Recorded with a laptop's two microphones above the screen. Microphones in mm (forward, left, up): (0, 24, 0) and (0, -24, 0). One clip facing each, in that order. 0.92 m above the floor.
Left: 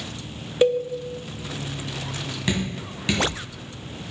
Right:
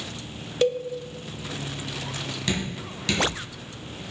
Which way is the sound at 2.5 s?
20° left (ahead or behind).